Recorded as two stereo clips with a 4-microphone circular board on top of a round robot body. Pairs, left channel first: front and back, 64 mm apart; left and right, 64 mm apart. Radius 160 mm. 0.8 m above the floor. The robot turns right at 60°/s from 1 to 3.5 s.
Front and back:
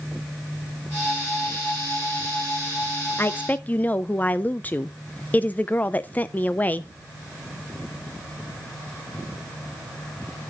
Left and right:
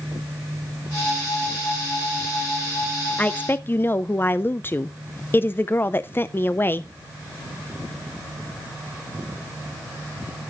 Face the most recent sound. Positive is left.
turn(degrees=50)